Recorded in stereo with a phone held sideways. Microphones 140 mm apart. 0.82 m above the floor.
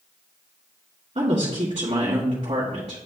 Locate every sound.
1.1 s a woman speaking: 45° right (ahead or behind), 1.6 m